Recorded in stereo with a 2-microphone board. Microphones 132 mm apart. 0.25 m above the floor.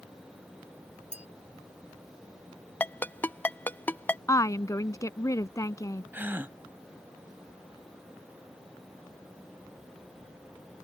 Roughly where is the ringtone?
Centre.